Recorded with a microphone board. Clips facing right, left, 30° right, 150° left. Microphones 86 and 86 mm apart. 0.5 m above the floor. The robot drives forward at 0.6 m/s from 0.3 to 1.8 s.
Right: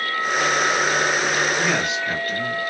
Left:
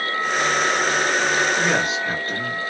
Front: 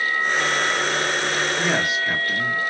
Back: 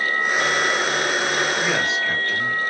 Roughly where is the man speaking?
Ahead left.